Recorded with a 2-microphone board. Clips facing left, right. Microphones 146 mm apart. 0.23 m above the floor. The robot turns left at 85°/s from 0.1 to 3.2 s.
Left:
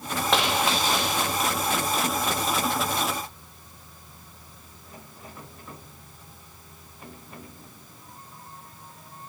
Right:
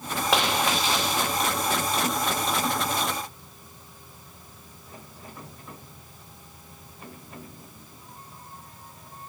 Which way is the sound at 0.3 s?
175° right.